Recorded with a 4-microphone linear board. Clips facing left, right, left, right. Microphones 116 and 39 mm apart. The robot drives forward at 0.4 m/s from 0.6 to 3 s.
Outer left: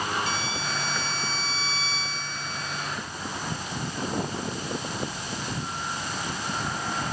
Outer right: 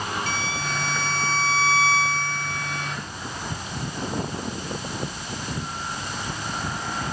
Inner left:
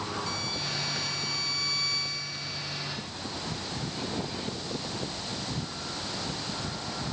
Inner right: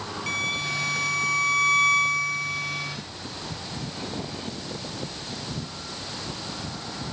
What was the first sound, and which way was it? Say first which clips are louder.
A violin: outer right 2 dB, inner right 7 dB; 60° right (ahead or behind).